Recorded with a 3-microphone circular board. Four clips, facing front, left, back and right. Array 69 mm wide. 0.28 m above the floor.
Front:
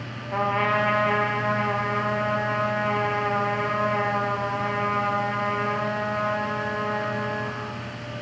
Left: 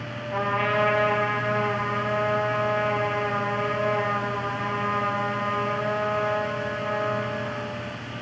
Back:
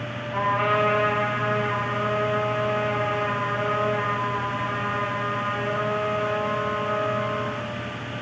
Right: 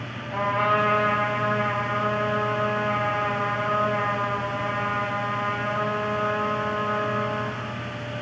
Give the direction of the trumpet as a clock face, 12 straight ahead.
12 o'clock.